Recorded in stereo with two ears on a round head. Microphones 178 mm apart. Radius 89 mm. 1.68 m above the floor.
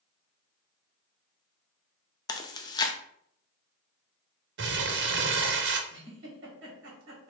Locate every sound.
2.3 s chewing: 20° left (ahead or behind), 0.6 m
4.6 s crumpling: 55° right (ahead or behind), 0.6 m
5.9 s a giggle: 60° right (ahead or behind), 1.9 m